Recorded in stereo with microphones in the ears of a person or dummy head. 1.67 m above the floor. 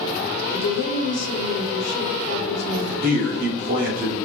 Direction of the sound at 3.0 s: 40° right (ahead or behind).